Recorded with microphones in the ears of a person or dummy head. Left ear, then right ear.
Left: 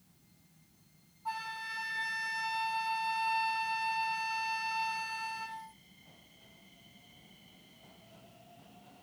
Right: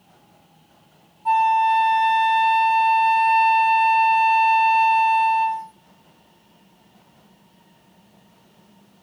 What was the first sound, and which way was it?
A flute, 20° right (ahead or behind).